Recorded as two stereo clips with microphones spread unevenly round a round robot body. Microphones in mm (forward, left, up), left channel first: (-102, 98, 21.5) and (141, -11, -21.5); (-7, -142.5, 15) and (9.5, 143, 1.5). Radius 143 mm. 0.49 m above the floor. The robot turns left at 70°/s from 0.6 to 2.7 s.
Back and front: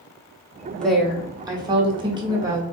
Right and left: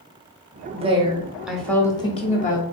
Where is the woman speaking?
60° left, 0.9 m; by 2.6 s 75° right, 0.9 m.